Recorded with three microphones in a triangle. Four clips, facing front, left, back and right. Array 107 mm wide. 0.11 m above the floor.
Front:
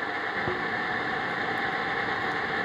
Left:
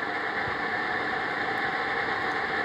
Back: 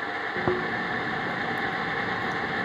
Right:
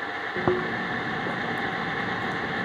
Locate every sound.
0.4 s chewing: 115° right